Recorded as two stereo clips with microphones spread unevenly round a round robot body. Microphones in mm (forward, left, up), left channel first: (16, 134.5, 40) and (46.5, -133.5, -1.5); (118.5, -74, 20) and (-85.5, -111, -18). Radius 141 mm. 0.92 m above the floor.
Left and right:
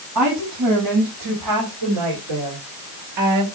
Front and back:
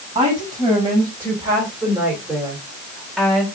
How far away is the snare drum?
No snare drum in this recording.